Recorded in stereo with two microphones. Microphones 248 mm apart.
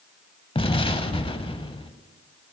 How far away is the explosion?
About 0.7 m.